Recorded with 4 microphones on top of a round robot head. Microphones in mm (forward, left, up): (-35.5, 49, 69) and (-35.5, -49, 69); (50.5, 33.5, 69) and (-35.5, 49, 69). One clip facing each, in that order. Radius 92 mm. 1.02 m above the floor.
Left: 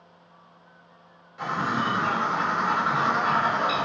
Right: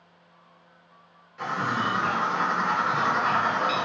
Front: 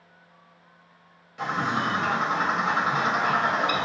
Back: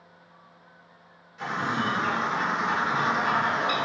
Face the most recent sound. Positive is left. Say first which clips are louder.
# left 1 dB, front 2 dB
turn(degrees=10)